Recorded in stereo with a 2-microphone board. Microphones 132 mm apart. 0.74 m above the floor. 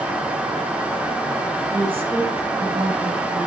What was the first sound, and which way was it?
A woman speaking, 40° right (ahead or behind).